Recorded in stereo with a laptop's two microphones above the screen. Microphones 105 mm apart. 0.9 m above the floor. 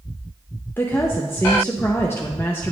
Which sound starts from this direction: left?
A woman speaking, at 0.8 s.